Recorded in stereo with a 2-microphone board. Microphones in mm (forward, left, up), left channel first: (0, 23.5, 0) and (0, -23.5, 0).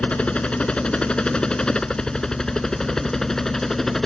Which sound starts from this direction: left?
A helicopter, at 0.0 s.